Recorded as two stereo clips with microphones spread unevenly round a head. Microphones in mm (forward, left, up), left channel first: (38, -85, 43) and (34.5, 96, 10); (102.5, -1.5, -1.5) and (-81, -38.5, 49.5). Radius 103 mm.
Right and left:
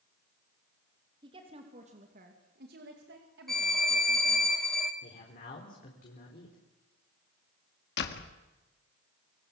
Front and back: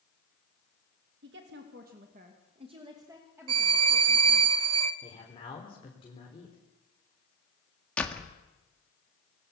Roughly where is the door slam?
Right.